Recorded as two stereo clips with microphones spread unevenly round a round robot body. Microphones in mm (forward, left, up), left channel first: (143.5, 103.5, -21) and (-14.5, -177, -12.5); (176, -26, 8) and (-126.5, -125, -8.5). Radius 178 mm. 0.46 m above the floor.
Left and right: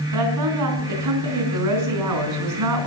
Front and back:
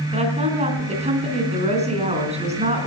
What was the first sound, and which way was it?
A woman speaking, 90° right.